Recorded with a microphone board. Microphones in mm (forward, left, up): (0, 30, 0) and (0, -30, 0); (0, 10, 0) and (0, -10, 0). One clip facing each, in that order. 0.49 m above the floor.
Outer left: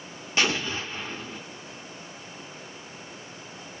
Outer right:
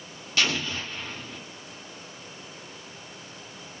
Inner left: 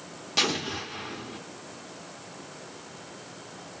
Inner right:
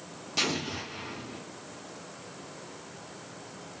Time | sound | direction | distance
0.4 | an explosion | 25° left (ahead or behind) | 0.8 m